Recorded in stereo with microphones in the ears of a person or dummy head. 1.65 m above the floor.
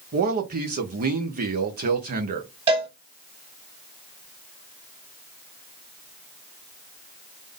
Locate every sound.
0.1 s a man speaking: 45° right (ahead or behind), 0.7 m
2.7 s a cowbell: 30° right (ahead or behind), 1.2 m